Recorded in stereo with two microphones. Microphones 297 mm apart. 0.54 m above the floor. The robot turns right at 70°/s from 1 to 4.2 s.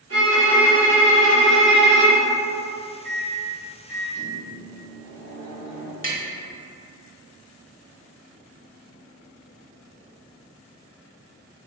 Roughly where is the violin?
Right.